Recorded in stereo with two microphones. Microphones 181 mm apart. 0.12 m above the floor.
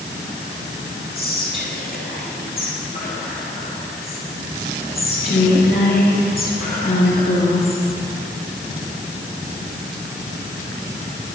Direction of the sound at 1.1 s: 55° left (ahead or behind).